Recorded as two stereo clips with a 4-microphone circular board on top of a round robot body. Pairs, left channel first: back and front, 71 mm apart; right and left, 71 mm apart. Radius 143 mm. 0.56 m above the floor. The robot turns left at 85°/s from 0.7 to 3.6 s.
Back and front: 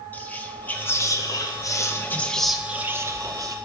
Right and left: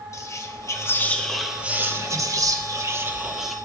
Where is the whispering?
120° right, 1.0 m; by 3.5 s 5° right, 1.0 m.